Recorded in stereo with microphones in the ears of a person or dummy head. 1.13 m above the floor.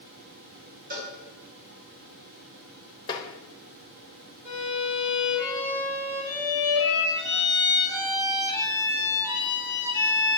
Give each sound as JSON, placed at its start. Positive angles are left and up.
{"t": 0.9, "sound": "a cowbell", "side_deg": -45, "distance_m": 2.5}
{"t": 3.1, "sound": "tapping", "side_deg": 25, "distance_m": 1.0}
{"t": 4.5, "sound": "a violin", "side_deg": -20, "distance_m": 2.0}